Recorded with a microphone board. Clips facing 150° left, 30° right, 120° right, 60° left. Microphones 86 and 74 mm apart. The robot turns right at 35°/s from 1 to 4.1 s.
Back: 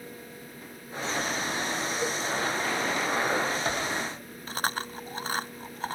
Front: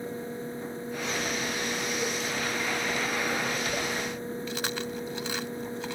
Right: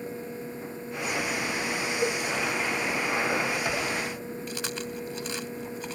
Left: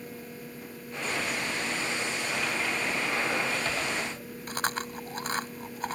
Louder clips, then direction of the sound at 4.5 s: Back 1 dB, left 7 dB; 105° left.